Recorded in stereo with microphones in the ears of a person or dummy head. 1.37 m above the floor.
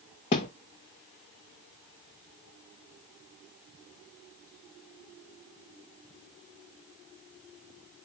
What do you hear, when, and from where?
0.3 s a thud: 25° left (ahead or behind), 0.7 m